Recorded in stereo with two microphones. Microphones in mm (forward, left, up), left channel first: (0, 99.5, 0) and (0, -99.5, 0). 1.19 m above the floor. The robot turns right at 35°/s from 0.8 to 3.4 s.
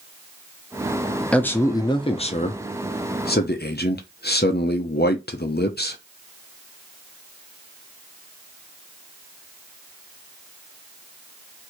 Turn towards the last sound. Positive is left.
turn(degrees=80)